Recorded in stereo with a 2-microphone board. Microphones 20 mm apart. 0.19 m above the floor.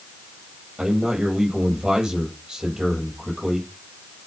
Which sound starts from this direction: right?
A man speaking, at 0.8 s.